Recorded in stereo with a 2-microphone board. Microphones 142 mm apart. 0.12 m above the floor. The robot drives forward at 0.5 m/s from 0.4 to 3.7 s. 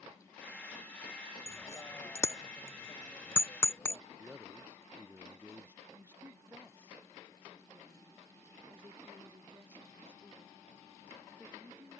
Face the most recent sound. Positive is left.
turn(degrees=-15)  # may be behind; listen again after turning